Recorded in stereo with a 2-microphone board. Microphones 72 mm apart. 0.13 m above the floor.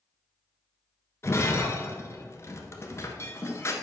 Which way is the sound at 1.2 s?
35° left (ahead or behind).